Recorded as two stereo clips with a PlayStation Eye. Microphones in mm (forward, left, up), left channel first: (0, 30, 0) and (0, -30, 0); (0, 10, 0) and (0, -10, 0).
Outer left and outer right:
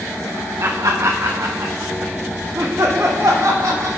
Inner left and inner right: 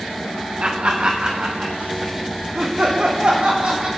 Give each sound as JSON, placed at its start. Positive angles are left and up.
{"t": 0.6, "sound": "laughter", "side_deg": -55, "distance_m": 0.8}